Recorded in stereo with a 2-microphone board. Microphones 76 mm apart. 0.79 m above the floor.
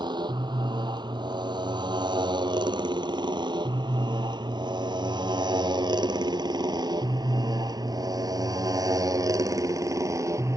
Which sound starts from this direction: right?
A motorcycle, at 0.0 s.